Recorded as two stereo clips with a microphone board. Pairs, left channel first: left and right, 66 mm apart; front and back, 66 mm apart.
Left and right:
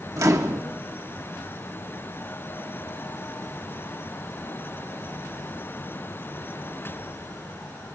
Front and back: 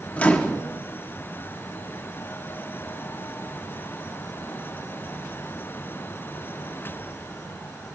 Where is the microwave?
65° right, 1.0 m.